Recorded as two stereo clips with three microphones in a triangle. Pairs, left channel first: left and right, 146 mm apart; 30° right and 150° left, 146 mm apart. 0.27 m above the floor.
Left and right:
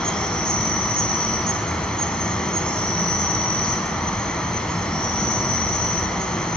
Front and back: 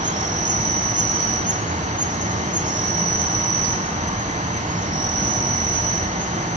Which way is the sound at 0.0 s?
175° left.